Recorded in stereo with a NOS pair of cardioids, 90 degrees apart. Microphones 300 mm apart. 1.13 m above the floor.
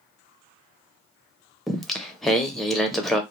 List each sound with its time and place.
1.7 s singing: straight ahead, 0.6 m